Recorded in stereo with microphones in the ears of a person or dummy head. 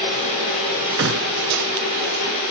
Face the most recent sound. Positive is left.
turn(degrees=-65)  # may be behind; listen again after turning